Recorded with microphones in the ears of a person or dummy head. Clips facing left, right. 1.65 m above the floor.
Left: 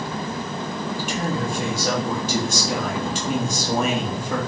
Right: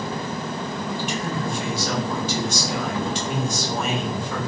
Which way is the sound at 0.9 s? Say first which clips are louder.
Left 3 dB; 45° left (ahead or behind).